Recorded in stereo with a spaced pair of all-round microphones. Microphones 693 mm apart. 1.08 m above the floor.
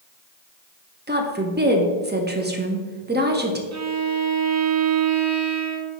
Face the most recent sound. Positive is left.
turn(degrees=-25)  # may be behind; listen again after turning